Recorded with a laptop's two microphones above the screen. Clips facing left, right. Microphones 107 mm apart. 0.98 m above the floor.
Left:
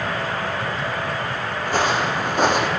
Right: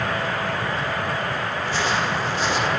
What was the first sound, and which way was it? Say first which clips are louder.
Footsteps: left 4 dB; 50° left (ahead or behind).